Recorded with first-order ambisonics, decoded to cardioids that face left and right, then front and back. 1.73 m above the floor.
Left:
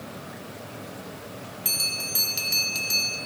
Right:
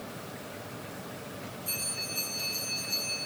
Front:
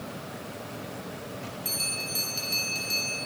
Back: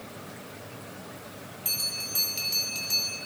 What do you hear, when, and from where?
1.6 s a bell: 90° left, 2.5 m